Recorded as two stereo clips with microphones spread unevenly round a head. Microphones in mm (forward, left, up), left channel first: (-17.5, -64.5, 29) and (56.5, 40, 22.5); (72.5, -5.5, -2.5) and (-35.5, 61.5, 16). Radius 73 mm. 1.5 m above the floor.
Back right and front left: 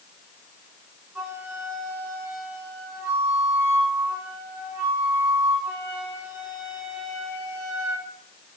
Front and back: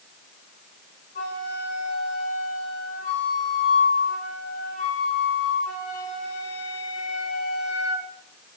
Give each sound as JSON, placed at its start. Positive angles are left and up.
{"t": 1.1, "sound": "a flute", "azimuth_deg": -15, "distance_m": 4.5}